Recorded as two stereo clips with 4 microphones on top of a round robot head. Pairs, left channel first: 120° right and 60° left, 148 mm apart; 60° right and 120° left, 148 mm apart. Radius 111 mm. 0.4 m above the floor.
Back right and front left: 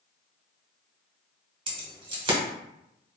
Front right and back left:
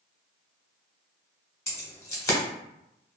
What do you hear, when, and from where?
1.7 s keys jangling: 10° left, 1.1 m